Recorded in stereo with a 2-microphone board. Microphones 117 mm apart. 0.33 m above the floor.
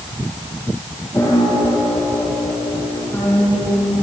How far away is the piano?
About 9 m.